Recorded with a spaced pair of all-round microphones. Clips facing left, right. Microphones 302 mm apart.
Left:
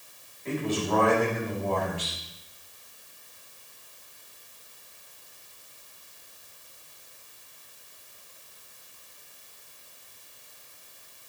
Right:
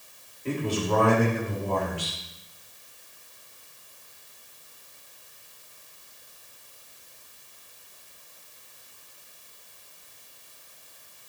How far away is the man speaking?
About 5 m.